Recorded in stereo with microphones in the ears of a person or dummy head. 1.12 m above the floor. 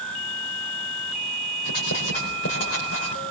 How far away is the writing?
About 4.5 m.